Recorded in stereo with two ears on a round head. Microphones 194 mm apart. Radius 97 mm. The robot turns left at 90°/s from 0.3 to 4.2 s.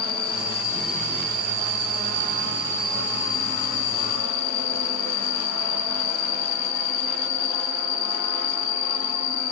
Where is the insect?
50° left, 1.3 m; by 9.5 s 60° left, 1.3 m.